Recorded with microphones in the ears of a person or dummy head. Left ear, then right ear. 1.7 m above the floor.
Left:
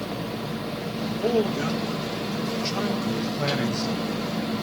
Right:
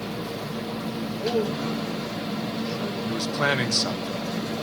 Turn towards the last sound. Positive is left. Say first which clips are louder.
# right 3 dB
turn(degrees=-70)  # may be behind; listen again after turning